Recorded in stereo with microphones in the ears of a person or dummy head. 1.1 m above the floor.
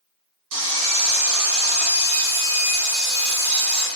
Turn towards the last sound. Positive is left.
turn(degrees=-60)  # may be behind; listen again after turning